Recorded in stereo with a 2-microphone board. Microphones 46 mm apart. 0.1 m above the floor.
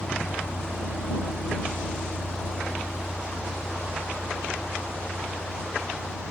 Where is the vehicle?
80° left; by 6.3 s 10° left (ahead or behind).